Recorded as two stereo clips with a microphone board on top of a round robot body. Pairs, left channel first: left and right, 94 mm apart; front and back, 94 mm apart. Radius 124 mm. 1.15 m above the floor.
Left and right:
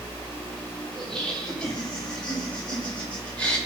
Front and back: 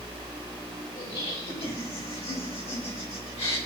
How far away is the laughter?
About 8 m.